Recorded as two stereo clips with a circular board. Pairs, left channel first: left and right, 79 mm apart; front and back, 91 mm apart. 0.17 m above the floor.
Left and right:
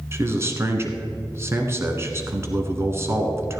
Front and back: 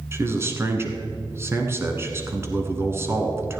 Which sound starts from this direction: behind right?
A man speaking, at 0.1 s.